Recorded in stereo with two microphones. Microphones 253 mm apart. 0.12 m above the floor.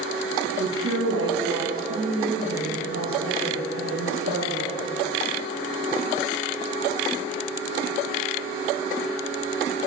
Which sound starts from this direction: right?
A woman speaking, at 0.6 s.